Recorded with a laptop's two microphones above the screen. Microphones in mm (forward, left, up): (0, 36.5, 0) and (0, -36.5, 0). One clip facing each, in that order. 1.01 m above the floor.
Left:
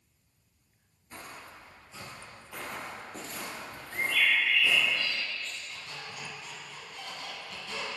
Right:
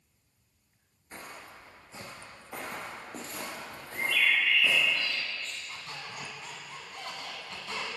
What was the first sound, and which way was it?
Footsteps, 30° right (ahead or behind).